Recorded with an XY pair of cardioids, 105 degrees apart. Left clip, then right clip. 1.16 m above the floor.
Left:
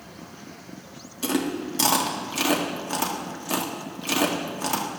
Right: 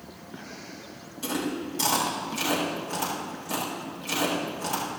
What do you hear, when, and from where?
1.2 s chewing: 45° left, 1.8 m